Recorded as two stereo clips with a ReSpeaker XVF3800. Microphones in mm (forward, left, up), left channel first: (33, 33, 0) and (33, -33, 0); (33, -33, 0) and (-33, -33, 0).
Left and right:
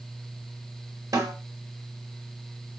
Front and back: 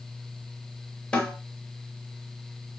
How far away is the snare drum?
About 0.8 m.